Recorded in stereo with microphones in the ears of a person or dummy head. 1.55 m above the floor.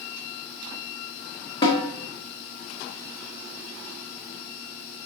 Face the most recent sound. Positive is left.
turn(degrees=30)  # may be behind; listen again after turning